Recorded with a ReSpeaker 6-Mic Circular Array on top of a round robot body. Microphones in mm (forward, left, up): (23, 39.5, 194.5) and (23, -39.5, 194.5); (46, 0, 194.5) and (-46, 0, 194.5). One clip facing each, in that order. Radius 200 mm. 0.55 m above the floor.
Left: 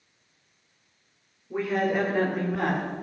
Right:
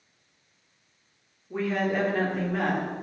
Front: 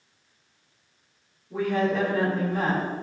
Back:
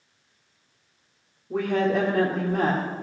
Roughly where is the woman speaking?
Behind.